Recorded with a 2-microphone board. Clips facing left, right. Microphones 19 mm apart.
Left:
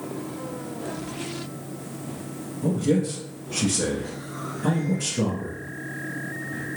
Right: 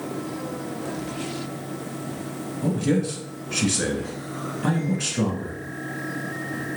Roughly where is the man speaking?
Right.